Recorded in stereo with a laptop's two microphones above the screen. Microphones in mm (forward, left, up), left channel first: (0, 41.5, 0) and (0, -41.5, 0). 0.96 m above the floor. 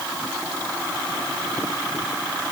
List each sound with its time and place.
Only background noise.